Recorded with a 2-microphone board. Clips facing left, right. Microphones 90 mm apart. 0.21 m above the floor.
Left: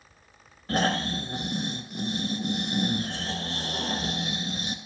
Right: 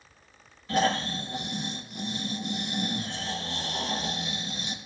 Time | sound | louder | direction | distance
0.7 | snoring | even | 50° left (ahead or behind) | 1.5 m